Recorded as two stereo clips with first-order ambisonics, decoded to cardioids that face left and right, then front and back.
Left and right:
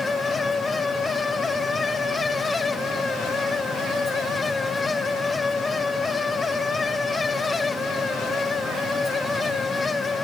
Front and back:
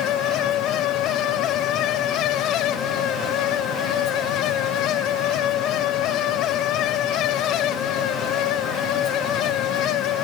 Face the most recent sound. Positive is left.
No sound to turn to.